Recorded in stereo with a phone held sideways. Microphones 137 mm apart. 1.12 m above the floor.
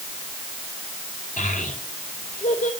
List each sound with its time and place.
1.4 s a child speaking: 75° left (ahead or behind), 4 m